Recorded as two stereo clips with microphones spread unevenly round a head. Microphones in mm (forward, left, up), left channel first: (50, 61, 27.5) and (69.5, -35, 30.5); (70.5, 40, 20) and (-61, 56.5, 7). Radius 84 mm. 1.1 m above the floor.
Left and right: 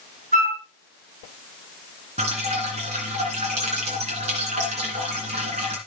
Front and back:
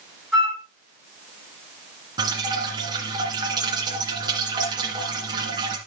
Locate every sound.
0.3 s a flute: 95° right, 6 m
2.2 s dripping: 120° right, 2 m